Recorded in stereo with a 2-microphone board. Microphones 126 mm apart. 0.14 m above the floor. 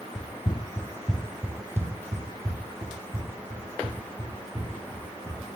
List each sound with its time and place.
0.1 s running footsteps: 55° left (ahead or behind), 0.7 m; by 5.4 s 45° right (ahead or behind), 3.5 m